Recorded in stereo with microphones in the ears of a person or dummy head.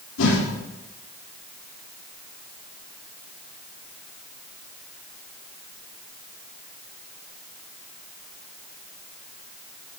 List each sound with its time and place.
0.2 s a whoosh: 85° left, 4 m